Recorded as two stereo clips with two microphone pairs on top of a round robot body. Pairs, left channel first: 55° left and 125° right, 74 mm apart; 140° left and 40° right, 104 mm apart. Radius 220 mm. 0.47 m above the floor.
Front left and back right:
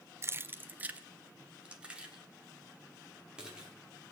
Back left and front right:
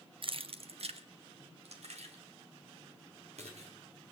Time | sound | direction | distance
0.2 | keys jangling | 70° right | 0.8 m